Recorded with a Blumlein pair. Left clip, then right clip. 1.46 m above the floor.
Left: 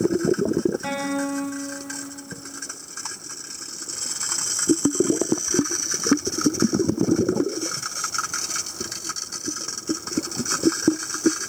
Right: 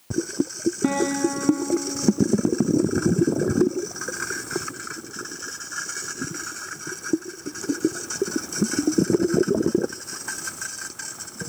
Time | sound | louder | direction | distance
0.8 | a guitar | right 3 dB | 10° left | 8 m